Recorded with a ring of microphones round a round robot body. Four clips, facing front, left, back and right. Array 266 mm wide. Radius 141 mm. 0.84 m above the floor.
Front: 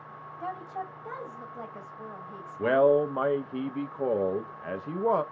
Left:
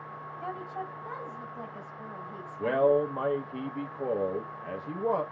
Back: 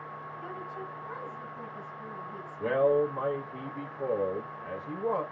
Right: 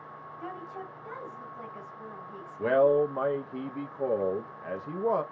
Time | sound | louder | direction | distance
0.4 | a woman speaking | left 3 dB, front 6 dB | 20° left | 1.8 m
2.6 | a man speaking | right 2 dB, front 3 dB | 15° right | 0.6 m